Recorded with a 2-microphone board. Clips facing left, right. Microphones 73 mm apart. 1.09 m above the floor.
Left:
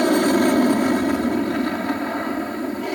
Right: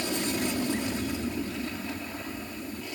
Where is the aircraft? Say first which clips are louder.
Left 14 dB; 60° left (ahead or behind).